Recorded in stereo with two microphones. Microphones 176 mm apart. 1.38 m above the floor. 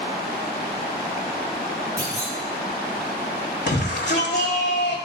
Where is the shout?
75° left (ahead or behind), 1.3 m.